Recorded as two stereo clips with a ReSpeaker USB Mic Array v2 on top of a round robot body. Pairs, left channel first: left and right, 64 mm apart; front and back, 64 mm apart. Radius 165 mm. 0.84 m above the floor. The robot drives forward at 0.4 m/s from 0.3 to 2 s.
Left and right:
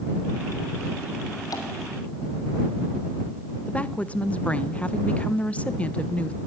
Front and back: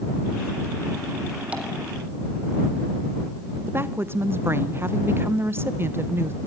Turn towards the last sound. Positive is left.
turn(degrees=150)